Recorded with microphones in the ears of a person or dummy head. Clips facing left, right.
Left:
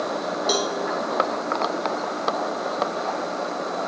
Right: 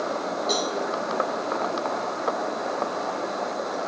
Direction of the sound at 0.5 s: 45° left (ahead or behind).